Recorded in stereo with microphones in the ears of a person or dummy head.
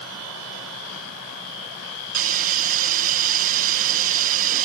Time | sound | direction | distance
2.1 | a hiss | 45° right (ahead or behind) | 0.9 m